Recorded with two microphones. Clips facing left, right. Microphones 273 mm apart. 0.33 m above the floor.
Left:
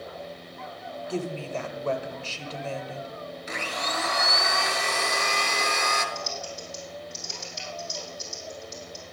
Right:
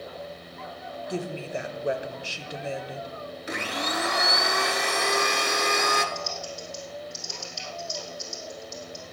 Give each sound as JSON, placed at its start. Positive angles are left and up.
{"t": 1.1, "sound": "a woman speaking", "side_deg": -15, "distance_m": 1.1}
{"t": 3.5, "sound": "a blender", "side_deg": -65, "distance_m": 1.0}
{"t": 6.2, "sound": "typing on a keyboard", "side_deg": 20, "distance_m": 2.5}